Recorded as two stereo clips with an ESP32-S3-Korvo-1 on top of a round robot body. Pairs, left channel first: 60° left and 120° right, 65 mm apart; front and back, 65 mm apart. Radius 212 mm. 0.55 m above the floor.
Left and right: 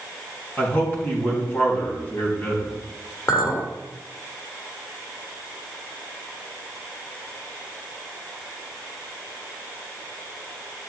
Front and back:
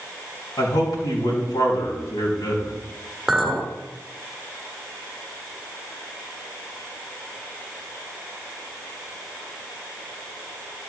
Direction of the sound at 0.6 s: Straight ahead.